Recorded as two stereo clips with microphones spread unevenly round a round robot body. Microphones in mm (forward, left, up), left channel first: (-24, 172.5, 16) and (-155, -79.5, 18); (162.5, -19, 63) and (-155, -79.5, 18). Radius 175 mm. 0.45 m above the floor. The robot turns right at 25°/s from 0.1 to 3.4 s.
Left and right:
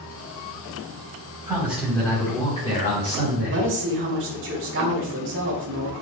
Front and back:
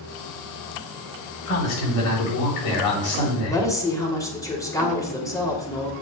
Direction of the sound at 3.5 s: 75° right.